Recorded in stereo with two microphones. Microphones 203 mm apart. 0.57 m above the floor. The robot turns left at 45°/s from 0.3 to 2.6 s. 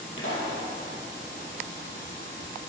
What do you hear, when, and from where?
0.2 s a pop: 75° left (ahead or behind), 3 m; by 0.6 s 85° left, 3 m